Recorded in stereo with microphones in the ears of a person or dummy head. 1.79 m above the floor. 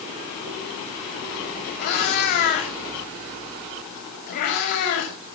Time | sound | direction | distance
1.8 | a cat meowing | 55° left (ahead or behind) | 6 m